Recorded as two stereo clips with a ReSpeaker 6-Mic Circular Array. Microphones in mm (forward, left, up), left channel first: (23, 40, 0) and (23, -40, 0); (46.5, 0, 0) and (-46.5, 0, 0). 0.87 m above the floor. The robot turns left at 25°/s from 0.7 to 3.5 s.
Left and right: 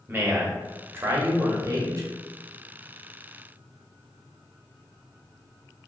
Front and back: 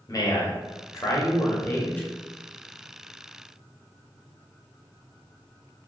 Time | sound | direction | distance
0.1 | a man speaking | 35° right | 0.8 m